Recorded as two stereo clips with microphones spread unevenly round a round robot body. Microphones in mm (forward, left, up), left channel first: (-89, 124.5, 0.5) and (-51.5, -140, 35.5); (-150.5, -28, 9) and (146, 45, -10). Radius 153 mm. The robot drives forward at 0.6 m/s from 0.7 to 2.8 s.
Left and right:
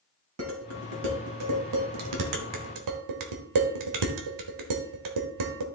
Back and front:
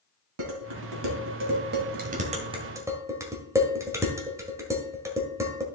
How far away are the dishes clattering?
About 2 m.